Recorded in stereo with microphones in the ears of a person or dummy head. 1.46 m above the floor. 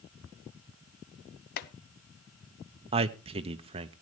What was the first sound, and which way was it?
Chopping, 50° left (ahead or behind).